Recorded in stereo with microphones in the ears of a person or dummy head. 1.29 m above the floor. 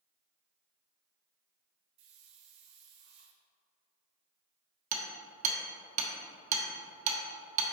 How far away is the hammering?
About 1.0 m.